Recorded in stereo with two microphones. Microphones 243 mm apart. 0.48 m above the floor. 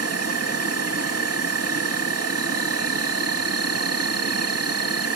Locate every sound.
0.0 s an insect: 80° right, 0.9 m